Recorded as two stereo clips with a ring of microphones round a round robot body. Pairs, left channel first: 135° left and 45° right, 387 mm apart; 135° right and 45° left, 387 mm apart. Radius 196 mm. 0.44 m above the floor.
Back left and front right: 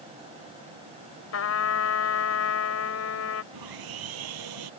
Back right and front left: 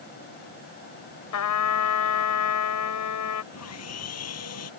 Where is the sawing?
80° right.